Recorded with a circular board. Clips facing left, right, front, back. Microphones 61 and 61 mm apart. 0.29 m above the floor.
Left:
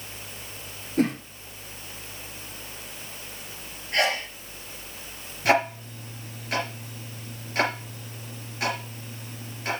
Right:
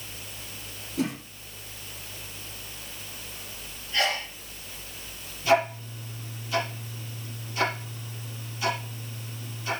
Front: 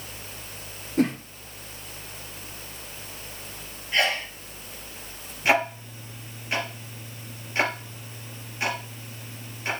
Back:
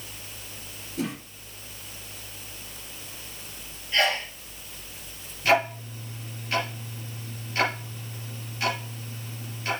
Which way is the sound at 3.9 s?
70° left.